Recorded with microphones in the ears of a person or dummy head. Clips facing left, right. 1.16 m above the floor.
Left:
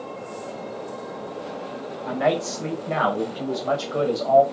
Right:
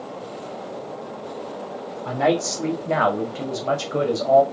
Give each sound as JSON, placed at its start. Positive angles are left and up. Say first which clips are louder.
{"t": 2.0, "sound": "a man speaking", "louder": "right 2 dB", "side_deg": -60, "distance_m": 2.0}